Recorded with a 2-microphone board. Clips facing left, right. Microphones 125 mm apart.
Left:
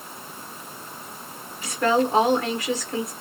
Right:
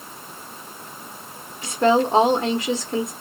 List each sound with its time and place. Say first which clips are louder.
1.6 s a woman speaking: right 3 dB; 25° right (ahead or behind), 0.9 m